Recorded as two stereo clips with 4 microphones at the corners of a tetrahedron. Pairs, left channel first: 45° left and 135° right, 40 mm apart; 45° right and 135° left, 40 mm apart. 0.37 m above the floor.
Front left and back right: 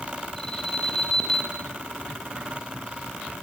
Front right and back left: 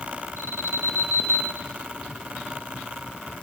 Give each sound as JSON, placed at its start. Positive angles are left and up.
{"t": 0.4, "sound": "an alarm", "azimuth_deg": 120, "distance_m": 6.0}